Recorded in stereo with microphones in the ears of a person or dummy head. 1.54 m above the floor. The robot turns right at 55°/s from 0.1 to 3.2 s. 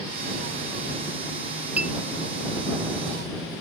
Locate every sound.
1.8 s a clink: 10° right (ahead or behind); by 1.9 s centre (ahead or behind)